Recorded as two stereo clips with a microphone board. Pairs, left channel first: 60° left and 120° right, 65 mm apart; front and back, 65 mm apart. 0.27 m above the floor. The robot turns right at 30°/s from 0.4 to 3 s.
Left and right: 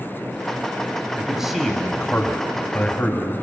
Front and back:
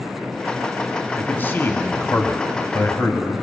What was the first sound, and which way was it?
A man speaking, 45° right.